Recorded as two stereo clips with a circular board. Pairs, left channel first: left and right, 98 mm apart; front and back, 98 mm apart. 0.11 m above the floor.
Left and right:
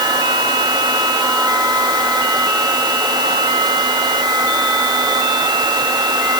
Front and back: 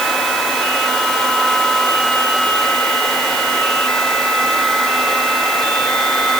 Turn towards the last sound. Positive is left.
No sound to turn to.